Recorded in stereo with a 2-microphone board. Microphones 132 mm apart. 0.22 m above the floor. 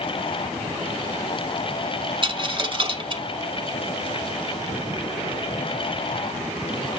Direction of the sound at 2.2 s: 40° right (ahead or behind).